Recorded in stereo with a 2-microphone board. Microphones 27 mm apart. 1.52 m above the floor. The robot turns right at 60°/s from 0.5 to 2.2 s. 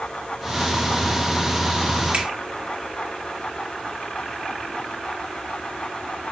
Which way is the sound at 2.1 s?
75° right (ahead or behind).